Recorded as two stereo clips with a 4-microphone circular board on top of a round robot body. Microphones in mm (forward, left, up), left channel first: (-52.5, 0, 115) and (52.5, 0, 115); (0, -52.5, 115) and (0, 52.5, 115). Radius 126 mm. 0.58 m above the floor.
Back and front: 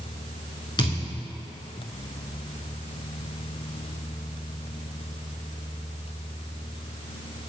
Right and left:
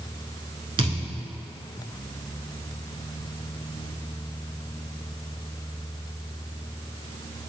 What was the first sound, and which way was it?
A thud, 130° left.